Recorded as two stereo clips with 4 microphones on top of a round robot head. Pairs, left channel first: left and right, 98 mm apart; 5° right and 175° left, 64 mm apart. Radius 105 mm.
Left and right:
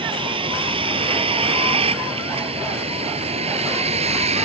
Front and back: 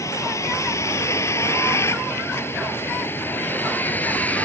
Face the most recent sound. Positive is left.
turn(degrees=-75)